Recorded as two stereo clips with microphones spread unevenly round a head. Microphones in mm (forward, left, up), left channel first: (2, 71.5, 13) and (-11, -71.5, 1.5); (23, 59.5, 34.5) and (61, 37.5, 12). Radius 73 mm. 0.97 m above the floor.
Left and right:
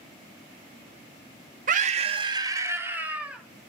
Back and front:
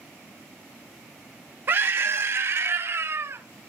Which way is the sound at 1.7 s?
60° right.